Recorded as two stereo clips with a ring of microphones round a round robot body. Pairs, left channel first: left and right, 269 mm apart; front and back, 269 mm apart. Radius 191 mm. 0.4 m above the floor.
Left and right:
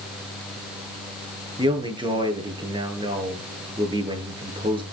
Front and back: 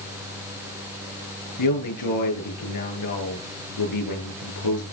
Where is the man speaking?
20° right, 8 m.